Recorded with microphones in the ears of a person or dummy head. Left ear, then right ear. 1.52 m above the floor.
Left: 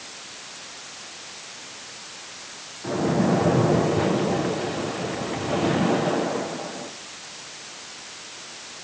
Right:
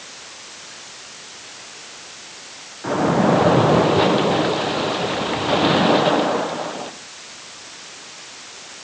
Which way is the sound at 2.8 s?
45° right (ahead or behind).